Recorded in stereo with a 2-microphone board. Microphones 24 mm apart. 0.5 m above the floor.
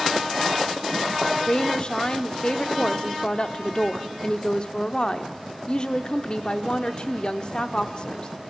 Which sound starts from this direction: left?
A woman speaking, at 1.5 s.